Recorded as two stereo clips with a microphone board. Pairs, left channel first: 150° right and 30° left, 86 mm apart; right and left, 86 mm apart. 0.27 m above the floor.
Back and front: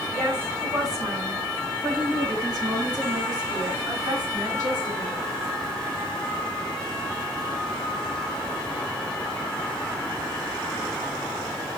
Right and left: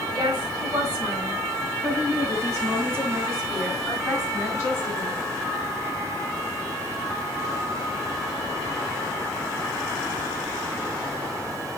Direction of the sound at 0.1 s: 80° left.